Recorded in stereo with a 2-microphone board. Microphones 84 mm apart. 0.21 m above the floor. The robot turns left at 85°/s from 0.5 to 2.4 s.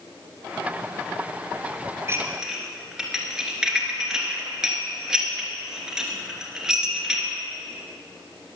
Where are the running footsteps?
No running footsteps in this recording.